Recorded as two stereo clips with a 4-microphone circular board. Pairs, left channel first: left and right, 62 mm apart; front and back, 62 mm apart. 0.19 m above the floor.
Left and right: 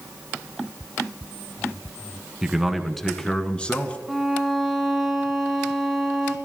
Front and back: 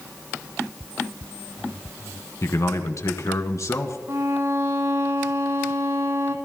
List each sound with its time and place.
2.4 s a man speaking: 10° right, 1.6 m; by 4.0 s 25° left, 2 m
4.1 s a violin: 175° right, 2 m